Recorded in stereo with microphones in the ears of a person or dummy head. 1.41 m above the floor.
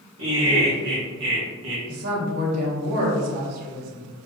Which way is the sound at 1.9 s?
50° right (ahead or behind).